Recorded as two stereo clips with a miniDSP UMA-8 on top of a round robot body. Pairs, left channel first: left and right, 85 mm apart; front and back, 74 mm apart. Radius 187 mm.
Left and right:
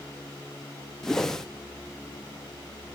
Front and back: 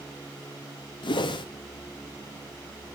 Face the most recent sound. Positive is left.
turn(degrees=5)